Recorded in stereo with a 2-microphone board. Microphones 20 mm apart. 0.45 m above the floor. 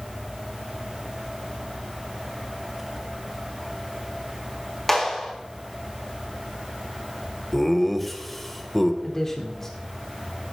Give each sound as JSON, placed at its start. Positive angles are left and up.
{"t": 4.9, "sound": "a clap", "side_deg": 15, "distance_m": 4.0}
{"t": 7.5, "sound": "laughter", "side_deg": 10, "distance_m": 1.7}
{"t": 9.0, "sound": "a man speaking", "side_deg": 20, "distance_m": 1.4}